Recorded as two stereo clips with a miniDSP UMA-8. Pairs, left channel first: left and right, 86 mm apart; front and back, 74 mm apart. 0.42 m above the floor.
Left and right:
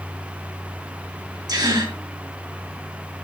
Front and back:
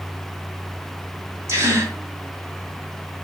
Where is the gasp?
130° right, 4.5 m.